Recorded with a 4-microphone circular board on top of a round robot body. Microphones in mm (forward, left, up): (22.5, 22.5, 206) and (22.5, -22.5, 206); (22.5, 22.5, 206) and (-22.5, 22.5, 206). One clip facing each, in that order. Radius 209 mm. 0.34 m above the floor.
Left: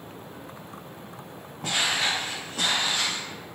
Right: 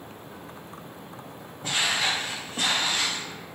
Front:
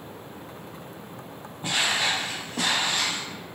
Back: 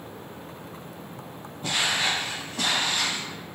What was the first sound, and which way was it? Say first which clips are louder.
Footsteps: even, even; 65° left.